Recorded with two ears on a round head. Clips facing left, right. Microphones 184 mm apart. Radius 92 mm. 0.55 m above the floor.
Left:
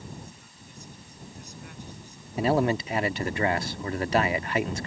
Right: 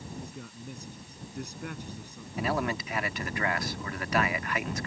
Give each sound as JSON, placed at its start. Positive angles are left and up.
{"t": 0.1, "sound": "a man speaking", "side_deg": -55}
{"t": 2.4, "sound": "a man speaking", "side_deg": 25}